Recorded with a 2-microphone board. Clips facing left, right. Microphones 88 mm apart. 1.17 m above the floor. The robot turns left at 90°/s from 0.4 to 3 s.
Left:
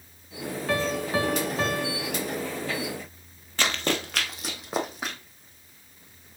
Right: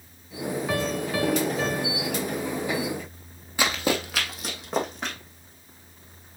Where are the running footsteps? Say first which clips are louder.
Right 2 dB; 10° right (ahead or behind), 1.3 m; by 5.2 s 5° left (ahead or behind), 2 m.